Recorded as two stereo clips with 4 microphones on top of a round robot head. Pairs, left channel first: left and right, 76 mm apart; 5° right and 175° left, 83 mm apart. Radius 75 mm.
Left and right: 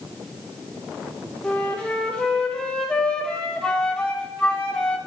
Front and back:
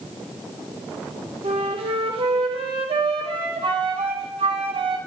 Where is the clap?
I don't hear a clap.